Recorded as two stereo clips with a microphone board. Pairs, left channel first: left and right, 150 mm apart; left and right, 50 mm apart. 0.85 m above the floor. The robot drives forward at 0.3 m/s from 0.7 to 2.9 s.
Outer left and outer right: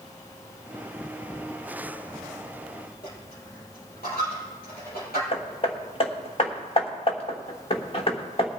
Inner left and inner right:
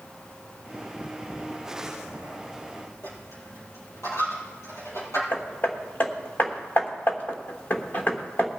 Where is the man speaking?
No man speaking in this recording.